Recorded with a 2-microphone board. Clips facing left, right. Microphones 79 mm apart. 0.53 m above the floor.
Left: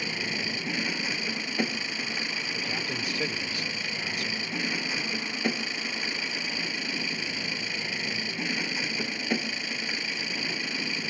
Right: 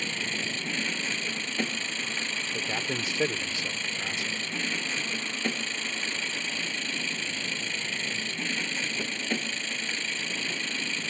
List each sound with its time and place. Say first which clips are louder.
0.0 s an engine running: left 1 dB; 10° left (ahead or behind)
2.5 s a man speaking: right 3 dB; 25° right (ahead or behind)